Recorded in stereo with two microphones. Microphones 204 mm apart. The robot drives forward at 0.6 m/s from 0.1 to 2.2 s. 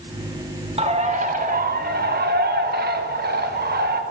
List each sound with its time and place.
0.8 s a bird: 30° right (ahead or behind), 1.1 m; by 4.0 s 50° right (ahead or behind), 0.7 m